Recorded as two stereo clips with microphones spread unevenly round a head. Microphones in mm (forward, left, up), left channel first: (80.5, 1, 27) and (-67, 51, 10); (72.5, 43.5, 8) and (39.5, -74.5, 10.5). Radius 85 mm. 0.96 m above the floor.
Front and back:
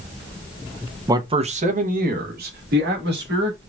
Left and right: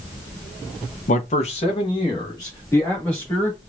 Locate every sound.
1.1 s a man speaking: 95° left, 0.6 m; by 3.6 s 155° left, 2 m